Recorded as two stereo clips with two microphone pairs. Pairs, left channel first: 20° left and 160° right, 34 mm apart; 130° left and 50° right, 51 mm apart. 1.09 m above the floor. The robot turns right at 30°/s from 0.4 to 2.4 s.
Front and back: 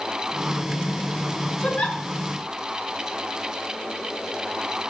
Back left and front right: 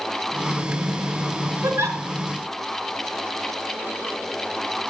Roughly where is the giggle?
Ahead right.